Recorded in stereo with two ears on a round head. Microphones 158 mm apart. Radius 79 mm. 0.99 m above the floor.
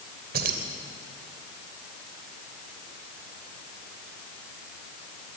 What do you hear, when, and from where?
0.3 s keys jangling: 55° right (ahead or behind), 2.5 m